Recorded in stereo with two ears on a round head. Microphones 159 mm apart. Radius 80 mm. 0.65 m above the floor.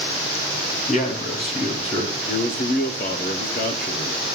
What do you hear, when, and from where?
0.9 s a man speaking: 45° left (ahead or behind), 4.5 m; by 2.2 s 25° left (ahead or behind), 3 m
2.3 s a man speaking: 55° left (ahead or behind), 1.5 m